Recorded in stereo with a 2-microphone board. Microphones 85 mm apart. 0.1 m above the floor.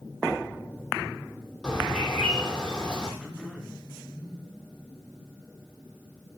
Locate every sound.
1.6 s a bird: 10° left (ahead or behind), 4 m
3.2 s throat clearing: 10° right (ahead or behind), 5 m